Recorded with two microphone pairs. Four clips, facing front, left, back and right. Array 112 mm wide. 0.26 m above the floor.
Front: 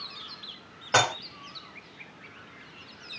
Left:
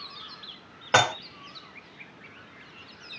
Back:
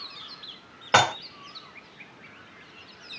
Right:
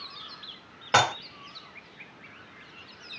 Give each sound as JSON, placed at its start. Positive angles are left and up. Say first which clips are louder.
{"t": 0.9, "sound": "dishes clattering", "louder": "left 1 dB, back 3 dB", "azimuth_deg": 145, "distance_m": 0.7}